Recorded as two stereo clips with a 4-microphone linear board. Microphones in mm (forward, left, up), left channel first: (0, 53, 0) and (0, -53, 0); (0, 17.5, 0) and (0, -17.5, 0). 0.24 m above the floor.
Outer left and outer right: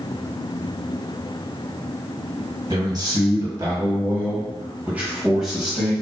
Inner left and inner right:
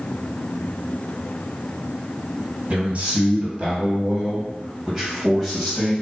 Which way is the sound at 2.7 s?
40° right (ahead or behind).